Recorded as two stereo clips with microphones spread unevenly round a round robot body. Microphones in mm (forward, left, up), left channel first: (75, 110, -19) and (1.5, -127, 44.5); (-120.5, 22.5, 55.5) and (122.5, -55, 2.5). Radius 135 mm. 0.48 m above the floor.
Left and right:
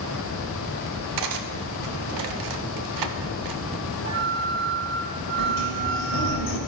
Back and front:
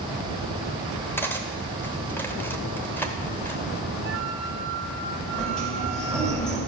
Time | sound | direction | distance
1.2 | cutlery clinking | 110° right | 0.8 m
4.0 | a flute | 35° right | 2 m
5.4 | a sliding door | 70° left | 2 m